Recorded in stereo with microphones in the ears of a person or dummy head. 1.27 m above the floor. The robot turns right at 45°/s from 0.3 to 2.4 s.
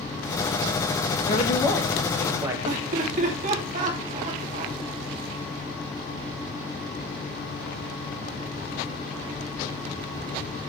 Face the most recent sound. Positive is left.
turn(degrees=-40)  # may be behind; listen again after turning